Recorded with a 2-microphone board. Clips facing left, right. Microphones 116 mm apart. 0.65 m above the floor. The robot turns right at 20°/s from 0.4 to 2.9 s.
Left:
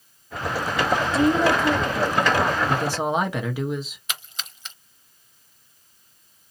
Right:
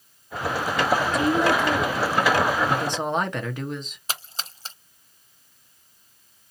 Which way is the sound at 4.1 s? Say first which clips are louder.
Right 2 dB; 35° right (ahead or behind).